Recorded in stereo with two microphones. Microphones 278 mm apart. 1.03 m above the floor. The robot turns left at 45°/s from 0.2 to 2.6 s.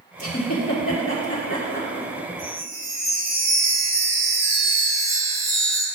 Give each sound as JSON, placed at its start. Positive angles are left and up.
{"t": 0.2, "sound": "a giggle", "side_deg": 75, "distance_m": 3.5}
{"t": 2.4, "sound": "a chime", "side_deg": 30, "distance_m": 2.5}